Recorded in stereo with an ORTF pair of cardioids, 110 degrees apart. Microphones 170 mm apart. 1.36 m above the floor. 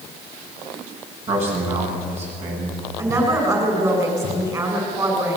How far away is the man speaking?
About 10 m.